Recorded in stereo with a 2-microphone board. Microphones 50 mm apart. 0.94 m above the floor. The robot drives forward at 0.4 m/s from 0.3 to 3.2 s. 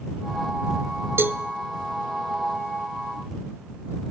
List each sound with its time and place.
1.2 s a cowbell: 50° right (ahead or behind), 0.9 m; by 1.4 s 45° right (ahead or behind), 1.0 m